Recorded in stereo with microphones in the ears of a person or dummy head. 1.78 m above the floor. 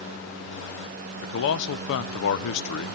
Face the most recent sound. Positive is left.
turn(degrees=55)  # may be behind; listen again after turning